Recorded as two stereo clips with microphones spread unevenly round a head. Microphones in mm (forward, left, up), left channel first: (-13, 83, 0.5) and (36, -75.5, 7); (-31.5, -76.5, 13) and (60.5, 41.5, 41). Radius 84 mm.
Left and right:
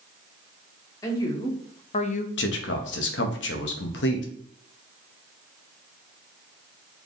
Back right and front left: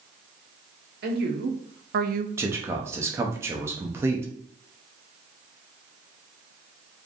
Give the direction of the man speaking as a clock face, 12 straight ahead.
8 o'clock.